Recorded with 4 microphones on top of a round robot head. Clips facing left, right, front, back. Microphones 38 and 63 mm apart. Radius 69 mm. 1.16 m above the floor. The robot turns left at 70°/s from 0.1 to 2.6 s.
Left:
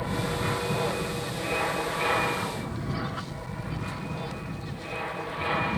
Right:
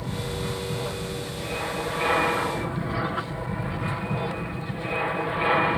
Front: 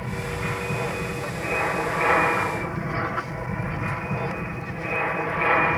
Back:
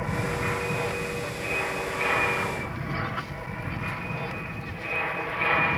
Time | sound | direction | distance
0.0 | an aircraft | 125° left | ?